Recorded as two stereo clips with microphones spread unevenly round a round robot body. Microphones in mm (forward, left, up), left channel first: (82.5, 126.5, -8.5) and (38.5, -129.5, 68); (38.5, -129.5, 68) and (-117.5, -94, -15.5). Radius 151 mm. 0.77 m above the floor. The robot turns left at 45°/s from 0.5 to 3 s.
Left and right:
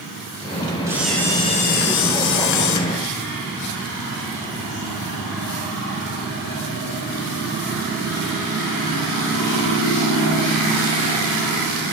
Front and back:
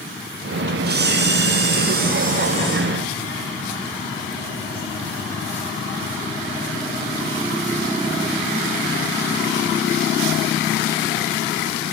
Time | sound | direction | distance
0.9 | a camera shutter | straight behind | 5.5 m